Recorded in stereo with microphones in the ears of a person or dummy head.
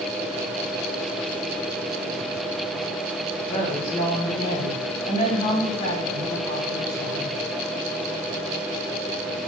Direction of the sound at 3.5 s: 40° left (ahead or behind).